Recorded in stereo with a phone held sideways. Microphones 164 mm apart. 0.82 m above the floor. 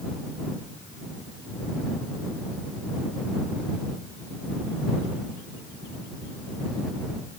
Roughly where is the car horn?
I don't hear a car horn.